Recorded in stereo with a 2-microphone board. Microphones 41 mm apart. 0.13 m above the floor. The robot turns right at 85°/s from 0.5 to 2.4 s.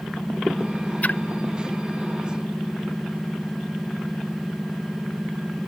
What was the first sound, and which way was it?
A splash, 35° left (ahead or behind).